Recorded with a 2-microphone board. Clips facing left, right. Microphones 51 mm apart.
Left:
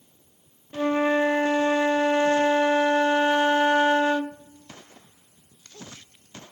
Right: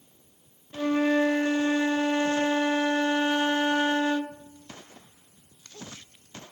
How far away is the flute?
About 0.5 m.